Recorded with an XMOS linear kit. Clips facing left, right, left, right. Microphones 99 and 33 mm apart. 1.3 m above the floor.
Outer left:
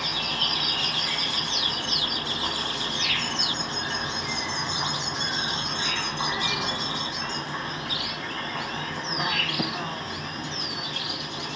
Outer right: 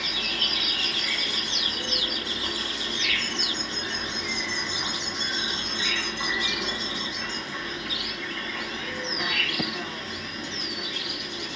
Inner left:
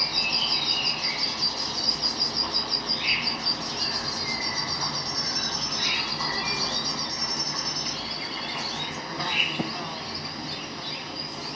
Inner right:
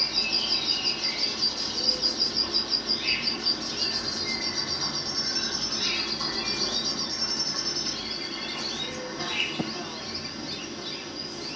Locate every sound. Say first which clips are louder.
0.0 s an insect: outer left 2 dB, inner left 2 dB; 35° left (ahead or behind), 1.5 m